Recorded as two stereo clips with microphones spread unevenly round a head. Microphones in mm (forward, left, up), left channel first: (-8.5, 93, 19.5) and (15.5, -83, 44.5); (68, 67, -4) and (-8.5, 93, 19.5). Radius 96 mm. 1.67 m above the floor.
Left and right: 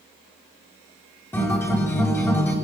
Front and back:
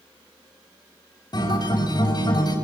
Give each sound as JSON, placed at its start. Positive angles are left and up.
{"t": 1.3, "sound": "a guitar", "azimuth_deg": 20, "distance_m": 7.5}